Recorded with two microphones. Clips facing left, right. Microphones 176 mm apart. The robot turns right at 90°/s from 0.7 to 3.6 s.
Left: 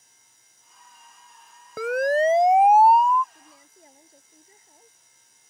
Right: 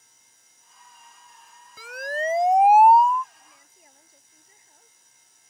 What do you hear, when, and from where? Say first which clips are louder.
1.8 s a siren: left 10 dB; 70° left (ahead or behind); by 3.2 s 50° right (ahead or behind)
3.3 s a woman speaking: left 5 dB; 50° left (ahead or behind); by 5.5 s 25° left (ahead or behind)